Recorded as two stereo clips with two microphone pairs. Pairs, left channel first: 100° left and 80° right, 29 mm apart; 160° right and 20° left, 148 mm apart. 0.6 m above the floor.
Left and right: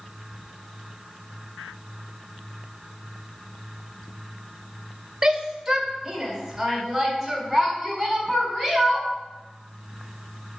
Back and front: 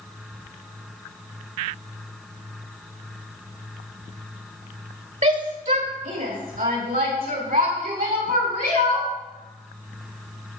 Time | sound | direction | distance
5.2 | a shout | 5° right | 2.5 m